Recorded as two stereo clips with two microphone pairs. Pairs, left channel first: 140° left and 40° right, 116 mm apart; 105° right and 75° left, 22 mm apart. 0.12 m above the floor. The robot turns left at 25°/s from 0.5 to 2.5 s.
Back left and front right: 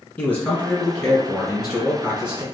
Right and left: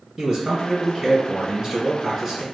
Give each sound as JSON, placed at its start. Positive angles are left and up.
{"t": 0.2, "sound": "a man speaking", "azimuth_deg": 80, "distance_m": 1.5}